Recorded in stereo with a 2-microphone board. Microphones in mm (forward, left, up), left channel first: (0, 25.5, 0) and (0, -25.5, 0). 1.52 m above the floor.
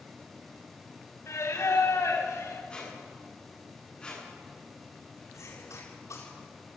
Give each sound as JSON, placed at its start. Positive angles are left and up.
{"t": 1.3, "sound": "singing", "side_deg": 75, "distance_m": 4.5}
{"t": 2.7, "sound": "a squeak", "side_deg": 20, "distance_m": 8.5}
{"t": 5.3, "sound": "a cough", "side_deg": 80, "distance_m": 8.0}